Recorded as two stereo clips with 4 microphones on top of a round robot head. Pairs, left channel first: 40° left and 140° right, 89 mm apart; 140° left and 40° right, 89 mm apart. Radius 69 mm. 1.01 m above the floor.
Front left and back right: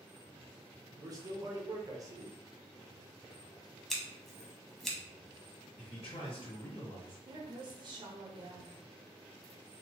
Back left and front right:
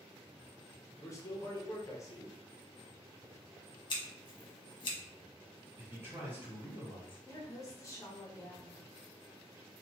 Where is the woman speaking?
165° right, 1.0 m.